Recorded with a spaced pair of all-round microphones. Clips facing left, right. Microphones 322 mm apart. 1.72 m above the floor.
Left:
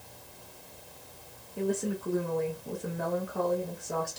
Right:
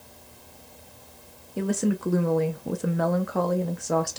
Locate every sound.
1.6 s a woman speaking: 85° right, 0.5 m